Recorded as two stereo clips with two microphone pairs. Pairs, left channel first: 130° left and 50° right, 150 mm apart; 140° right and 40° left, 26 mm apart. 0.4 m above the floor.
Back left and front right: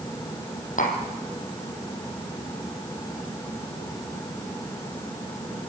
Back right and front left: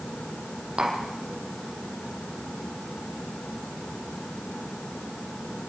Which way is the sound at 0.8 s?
95° left.